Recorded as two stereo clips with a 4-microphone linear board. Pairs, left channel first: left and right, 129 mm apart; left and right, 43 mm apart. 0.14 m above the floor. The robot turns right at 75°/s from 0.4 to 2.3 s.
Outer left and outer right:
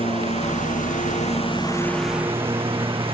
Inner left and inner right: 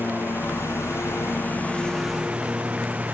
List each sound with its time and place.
0.0 s a lawn mower: 55° left; by 3.1 s 160° right